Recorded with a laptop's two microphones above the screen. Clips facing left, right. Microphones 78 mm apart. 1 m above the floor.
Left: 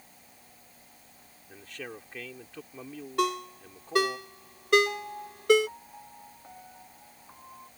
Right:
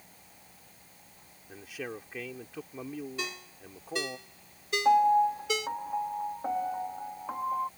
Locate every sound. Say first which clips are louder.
1.5 s a man speaking: right 3 dB; 10° right (ahead or behind)
3.2 s a ringtone: left 11 dB; 65° left (ahead or behind)
4.8 s a piano: right 16 dB; 75° right (ahead or behind)